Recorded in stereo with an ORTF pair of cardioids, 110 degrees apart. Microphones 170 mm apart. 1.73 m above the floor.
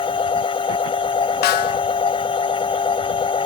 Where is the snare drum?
70° left.